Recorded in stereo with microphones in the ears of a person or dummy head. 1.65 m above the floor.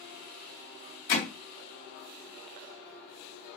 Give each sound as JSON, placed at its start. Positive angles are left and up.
{"t": 1.1, "sound": "hammering", "side_deg": 40, "distance_m": 2.0}